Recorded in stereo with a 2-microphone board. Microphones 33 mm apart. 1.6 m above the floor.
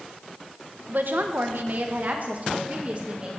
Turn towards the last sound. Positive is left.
turn(degrees=-35)  # may be behind; listen again after turning